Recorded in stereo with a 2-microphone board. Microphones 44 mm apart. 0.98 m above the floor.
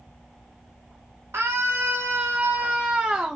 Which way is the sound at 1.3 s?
80° right.